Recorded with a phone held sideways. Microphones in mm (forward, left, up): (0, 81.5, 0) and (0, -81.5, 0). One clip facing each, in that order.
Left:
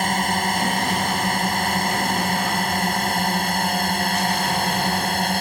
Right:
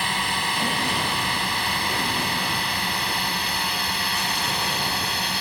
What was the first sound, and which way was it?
A drone, 45° left (ahead or behind).